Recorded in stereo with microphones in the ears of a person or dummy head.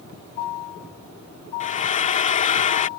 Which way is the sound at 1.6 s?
40° left (ahead or behind).